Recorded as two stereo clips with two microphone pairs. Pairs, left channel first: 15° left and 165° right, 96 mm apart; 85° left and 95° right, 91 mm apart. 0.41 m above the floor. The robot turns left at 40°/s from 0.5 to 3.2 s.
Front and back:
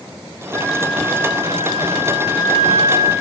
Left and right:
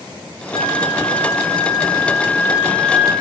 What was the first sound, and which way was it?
A flute, 85° left.